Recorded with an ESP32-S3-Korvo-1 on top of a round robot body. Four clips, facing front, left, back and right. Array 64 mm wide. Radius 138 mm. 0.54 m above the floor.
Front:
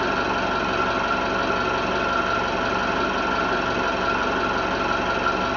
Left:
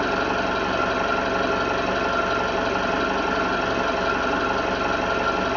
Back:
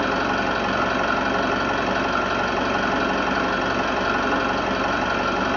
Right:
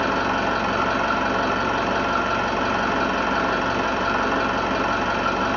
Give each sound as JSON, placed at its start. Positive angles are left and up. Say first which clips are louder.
{"t": 0.0, "sound": "an engine running", "louder": "right 1 dB, back 1 dB", "azimuth_deg": -140, "distance_m": 1.3}